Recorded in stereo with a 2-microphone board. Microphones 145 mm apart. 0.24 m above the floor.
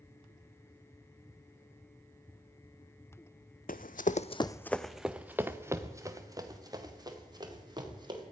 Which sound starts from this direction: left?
Running footsteps, at 3.7 s.